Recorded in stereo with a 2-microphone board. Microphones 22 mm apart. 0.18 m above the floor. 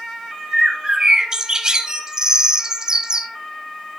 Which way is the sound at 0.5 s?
30° right (ahead or behind).